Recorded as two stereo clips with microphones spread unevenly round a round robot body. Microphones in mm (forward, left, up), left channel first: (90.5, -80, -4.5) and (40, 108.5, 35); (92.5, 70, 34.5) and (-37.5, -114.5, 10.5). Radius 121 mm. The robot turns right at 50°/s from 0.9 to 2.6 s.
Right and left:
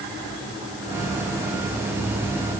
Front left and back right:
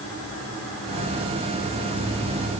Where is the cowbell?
No cowbell in this recording.